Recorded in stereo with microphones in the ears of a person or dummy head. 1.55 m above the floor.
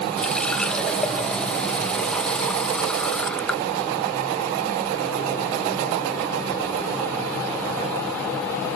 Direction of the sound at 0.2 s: 10° left (ahead or behind).